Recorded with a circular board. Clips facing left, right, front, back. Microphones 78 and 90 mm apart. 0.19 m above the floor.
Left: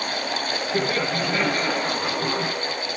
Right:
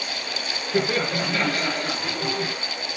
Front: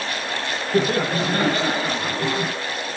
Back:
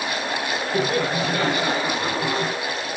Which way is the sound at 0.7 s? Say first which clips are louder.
Right 2 dB, front 3 dB; 5° right.